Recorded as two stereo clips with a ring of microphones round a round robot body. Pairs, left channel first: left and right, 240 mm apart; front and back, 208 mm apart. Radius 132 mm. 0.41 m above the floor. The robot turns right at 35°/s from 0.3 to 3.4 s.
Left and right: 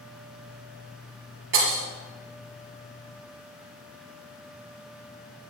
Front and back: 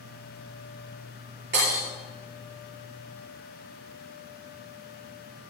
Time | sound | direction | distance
1.5 | breaking glass | 130° right | 5 m